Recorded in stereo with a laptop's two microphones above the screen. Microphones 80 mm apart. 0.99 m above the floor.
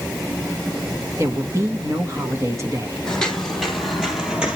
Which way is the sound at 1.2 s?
35° right (ahead or behind).